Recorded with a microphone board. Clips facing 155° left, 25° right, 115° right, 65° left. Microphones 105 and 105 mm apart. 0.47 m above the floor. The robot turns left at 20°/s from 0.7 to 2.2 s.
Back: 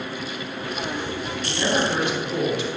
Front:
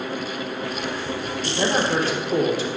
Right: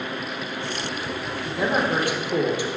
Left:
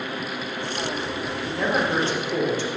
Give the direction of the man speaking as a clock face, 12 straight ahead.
1 o'clock.